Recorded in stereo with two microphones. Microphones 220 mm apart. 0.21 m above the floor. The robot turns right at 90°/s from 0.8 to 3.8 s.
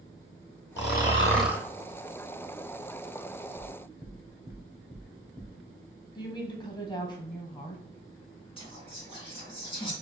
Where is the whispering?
25° left (ahead or behind), 2.0 m.